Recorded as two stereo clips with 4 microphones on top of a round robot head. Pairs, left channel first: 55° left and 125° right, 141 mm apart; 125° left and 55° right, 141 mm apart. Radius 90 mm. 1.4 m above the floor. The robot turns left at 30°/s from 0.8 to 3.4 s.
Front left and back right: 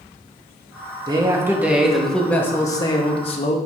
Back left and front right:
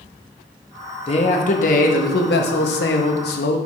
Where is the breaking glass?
No breaking glass in this recording.